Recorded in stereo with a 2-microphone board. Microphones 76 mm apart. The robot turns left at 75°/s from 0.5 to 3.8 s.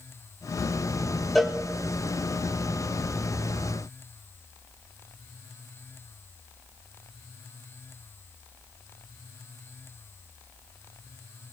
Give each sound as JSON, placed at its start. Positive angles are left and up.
{"t": 1.4, "sound": "a cowbell", "side_deg": 0, "distance_m": 1.8}